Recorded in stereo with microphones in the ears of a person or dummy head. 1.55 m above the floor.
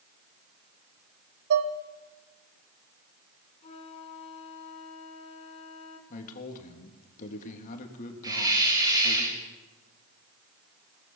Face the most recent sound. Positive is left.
turn(degrees=-20)  # may be behind; listen again after turning